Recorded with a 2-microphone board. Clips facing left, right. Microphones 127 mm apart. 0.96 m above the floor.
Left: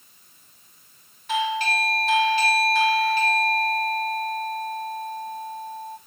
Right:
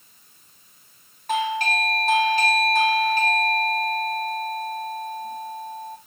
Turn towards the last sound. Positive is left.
turn(degrees=-45)  # may be behind; listen again after turning